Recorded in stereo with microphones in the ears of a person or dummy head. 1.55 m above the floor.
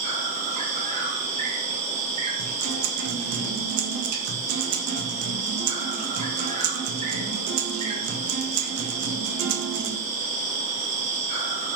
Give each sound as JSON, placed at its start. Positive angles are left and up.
{"t": 0.0, "sound": "an insect", "side_deg": -40, "distance_m": 2.5}
{"t": 2.4, "sound": "a guitar", "side_deg": -70, "distance_m": 1.4}